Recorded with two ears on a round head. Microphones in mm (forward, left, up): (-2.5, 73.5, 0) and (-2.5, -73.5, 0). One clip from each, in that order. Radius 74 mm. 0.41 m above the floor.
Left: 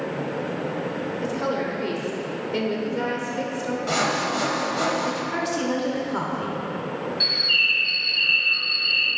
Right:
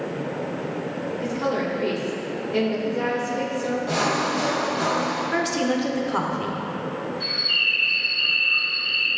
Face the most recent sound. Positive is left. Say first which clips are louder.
# left 2 dB
turn(degrees=70)  # may be behind; listen again after turning